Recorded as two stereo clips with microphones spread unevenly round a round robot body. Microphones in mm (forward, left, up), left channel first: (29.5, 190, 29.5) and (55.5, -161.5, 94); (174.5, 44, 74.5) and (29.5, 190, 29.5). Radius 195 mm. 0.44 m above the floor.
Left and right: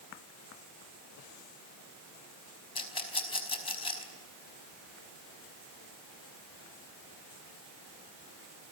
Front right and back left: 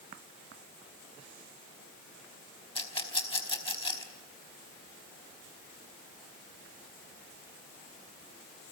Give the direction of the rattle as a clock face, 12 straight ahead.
11 o'clock.